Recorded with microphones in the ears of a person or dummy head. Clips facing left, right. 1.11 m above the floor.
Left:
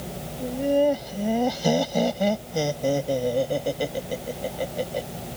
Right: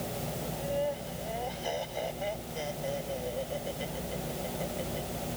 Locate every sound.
0.4 s laughter: 85° left